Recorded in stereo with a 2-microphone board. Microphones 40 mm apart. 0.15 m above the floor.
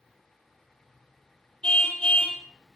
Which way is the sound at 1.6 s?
20° left (ahead or behind).